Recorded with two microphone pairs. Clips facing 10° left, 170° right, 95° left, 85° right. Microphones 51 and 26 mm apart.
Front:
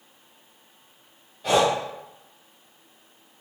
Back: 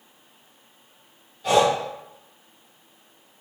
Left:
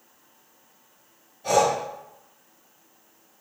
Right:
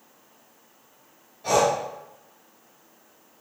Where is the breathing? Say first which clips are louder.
Back 2 dB, even; 50° right, 1.7 m.